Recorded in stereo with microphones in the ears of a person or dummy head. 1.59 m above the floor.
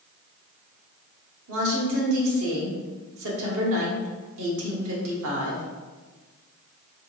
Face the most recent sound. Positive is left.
turn(degrees=-85)